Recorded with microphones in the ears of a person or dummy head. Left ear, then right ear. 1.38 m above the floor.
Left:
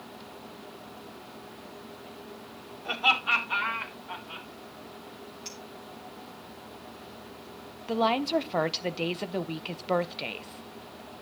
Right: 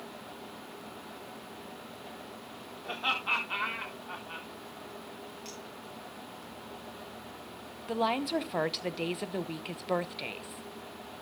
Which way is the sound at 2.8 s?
Centre (ahead or behind).